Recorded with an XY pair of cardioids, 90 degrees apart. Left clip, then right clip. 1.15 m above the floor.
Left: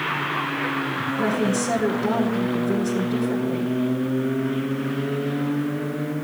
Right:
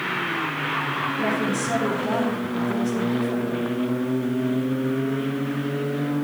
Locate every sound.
1.2 s a woman speaking: 60° left, 4 m